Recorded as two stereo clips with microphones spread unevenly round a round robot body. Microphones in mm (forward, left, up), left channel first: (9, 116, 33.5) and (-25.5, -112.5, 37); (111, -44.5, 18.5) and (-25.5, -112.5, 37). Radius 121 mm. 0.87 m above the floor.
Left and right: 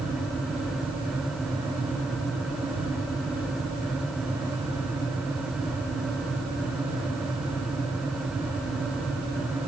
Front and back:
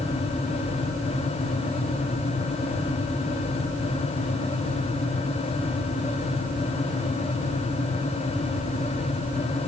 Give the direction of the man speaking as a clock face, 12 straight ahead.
No man speaking in this recording.